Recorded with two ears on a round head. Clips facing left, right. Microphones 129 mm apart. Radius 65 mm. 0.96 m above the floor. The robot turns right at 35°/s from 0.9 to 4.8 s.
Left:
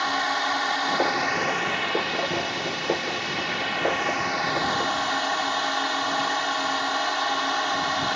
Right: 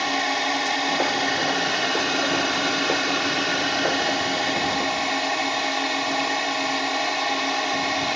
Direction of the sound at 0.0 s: 155° right.